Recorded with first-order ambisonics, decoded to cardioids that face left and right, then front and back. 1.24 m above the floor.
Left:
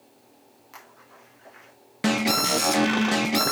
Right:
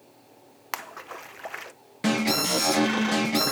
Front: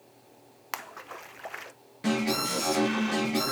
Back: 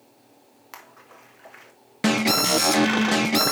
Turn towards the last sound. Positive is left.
turn(degrees=165)